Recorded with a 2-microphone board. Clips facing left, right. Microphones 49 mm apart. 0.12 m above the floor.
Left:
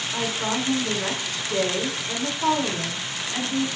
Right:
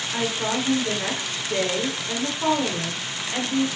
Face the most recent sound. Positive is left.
turn(degrees=-25)  # may be behind; listen again after turning